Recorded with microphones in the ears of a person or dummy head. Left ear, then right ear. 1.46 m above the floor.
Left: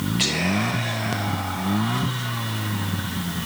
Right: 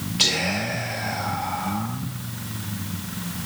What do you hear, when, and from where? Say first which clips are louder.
0.2 s whispering: right 2 dB; centre (ahead or behind), 2 m